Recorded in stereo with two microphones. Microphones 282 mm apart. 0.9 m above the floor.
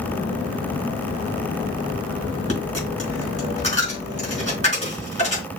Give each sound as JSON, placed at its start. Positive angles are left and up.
{"t": 2.5, "sound": "a dropped coin", "side_deg": -45, "distance_m": 3.5}